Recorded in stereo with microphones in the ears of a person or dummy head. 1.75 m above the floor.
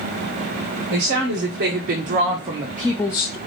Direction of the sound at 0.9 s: 70° right (ahead or behind).